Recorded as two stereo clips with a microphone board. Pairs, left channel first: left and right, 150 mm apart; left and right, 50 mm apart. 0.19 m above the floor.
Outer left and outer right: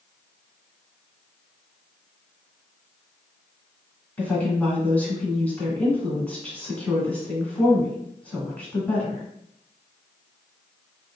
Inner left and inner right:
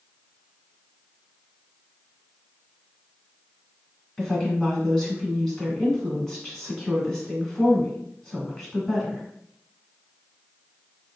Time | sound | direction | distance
4.2 | a woman speaking | 10° left (ahead or behind) | 1.7 m